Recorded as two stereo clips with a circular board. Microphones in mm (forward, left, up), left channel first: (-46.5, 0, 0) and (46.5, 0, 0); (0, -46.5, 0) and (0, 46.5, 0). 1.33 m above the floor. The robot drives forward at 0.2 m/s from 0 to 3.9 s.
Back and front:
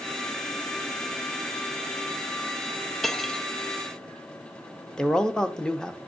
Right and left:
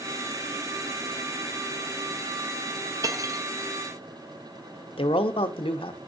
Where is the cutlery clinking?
95° left, 0.7 m; by 3.5 s 105° left, 0.7 m.